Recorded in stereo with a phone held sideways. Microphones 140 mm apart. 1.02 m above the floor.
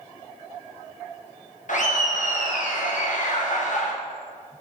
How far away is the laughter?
About 0.8 m.